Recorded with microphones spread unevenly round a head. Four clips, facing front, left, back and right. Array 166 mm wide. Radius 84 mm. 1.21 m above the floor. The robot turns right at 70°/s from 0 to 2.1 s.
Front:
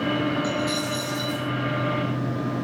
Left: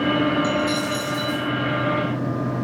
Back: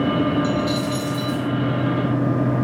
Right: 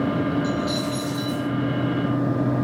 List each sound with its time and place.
0.4 s a dropped coin: 95° left, 5.5 m; by 1.5 s 165° left, 5.5 m